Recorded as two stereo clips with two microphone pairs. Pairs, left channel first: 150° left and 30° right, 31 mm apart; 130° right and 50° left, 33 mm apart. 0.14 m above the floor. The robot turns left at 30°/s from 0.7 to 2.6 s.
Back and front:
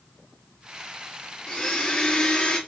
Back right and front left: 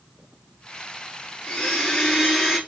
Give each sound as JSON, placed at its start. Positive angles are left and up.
{"t": 1.5, "sound": "a blender", "azimuth_deg": 170, "distance_m": 1.9}